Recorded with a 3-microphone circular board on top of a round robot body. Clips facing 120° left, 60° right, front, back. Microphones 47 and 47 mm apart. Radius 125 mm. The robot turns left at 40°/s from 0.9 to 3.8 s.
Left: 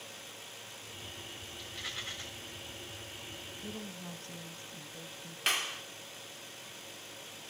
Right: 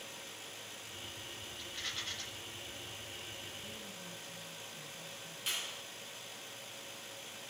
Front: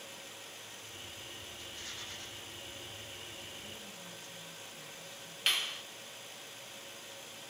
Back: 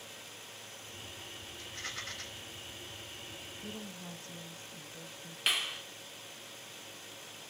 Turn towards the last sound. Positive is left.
turn(degrees=95)